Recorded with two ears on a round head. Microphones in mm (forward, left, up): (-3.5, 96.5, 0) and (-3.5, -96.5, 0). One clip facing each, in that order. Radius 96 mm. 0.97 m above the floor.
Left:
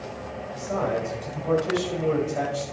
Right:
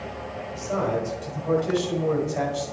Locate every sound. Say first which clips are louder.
0.5 s a man speaking: right 1 dB; 10° right (ahead or behind), 6 m; by 2.6 s 10° left (ahead or behind), 6.5 m